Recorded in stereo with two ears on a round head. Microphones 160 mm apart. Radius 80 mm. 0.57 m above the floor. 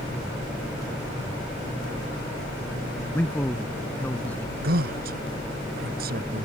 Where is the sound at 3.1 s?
10° left (ahead or behind).